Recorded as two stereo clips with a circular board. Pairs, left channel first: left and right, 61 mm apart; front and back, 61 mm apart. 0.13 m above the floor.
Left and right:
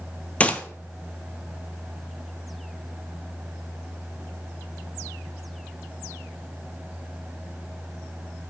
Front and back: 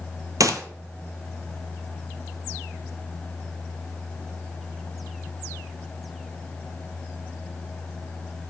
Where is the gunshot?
160° left, 0.7 m.